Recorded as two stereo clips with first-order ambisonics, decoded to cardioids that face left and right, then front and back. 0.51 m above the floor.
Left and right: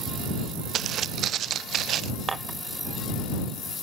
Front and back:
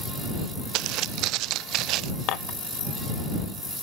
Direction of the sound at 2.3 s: 20° right.